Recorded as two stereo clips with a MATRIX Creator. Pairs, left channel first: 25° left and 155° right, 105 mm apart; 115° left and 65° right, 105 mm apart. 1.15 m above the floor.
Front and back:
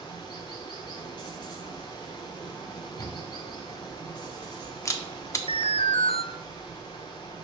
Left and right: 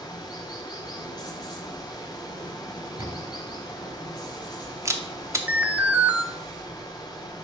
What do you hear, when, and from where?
0.0 s running water: 65° left, 1.4 m
3.0 s a camera shutter: 20° right, 0.8 m
5.5 s an alarm: 10° left, 0.6 m